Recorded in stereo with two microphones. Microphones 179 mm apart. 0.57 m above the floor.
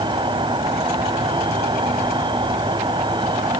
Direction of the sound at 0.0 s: 25° right (ahead or behind).